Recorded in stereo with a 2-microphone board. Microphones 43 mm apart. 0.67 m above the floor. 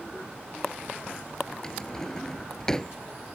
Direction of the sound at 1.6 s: 15° left (ahead or behind).